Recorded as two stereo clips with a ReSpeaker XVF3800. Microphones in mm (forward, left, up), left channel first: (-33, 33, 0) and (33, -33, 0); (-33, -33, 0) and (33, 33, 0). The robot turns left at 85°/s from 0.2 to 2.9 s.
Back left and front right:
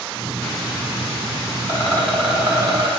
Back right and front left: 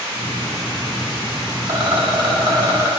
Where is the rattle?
90° left, 0.9 m; by 2.9 s 15° right, 0.9 m.